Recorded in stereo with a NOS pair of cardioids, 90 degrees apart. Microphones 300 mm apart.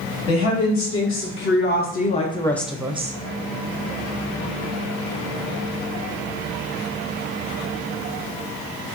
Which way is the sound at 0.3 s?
50° left.